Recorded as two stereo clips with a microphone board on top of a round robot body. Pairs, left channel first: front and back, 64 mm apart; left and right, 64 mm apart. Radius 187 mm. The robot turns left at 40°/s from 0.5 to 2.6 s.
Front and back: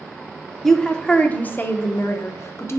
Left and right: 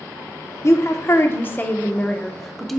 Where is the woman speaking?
80° left, 0.7 m; by 2.8 s 5° left, 0.7 m.